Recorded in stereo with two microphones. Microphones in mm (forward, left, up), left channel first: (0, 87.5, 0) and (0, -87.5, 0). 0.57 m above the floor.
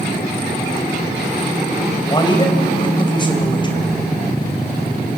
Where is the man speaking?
25° left (ahead or behind), 3 m.